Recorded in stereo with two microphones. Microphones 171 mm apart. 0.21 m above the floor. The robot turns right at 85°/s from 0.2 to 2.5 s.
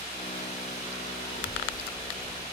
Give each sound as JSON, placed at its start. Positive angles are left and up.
{"t": 1.3, "sound": "a child speaking", "azimuth_deg": 90, "distance_m": 3.5}